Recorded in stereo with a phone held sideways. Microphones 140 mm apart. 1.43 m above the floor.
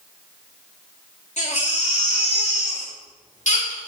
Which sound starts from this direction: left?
A baby crying, at 1.4 s.